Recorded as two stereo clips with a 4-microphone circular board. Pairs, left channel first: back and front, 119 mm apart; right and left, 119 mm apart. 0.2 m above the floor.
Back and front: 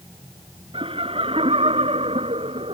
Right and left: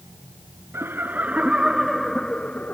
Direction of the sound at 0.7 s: 25° left.